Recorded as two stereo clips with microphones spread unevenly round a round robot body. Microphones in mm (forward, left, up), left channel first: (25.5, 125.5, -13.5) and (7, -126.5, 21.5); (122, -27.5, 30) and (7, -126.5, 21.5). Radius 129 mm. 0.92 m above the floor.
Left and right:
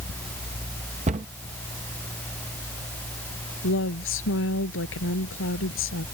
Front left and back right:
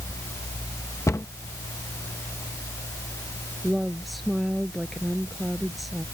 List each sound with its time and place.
1.1 s a cupboard door: 30° right
3.6 s a woman speaking: 130° left